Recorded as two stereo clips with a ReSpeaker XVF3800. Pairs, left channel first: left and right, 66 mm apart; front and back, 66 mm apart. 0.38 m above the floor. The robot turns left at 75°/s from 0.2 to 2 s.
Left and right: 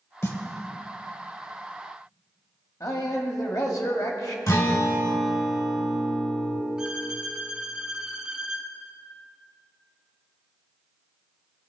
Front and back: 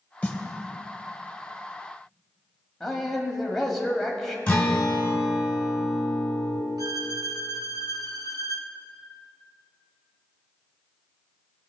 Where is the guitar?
65° left, 2 m.